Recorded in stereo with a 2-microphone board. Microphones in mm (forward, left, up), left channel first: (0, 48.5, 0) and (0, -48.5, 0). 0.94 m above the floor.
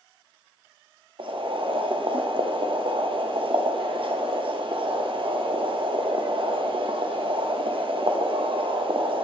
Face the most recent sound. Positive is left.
turn(degrees=-60)  # may be behind; listen again after turning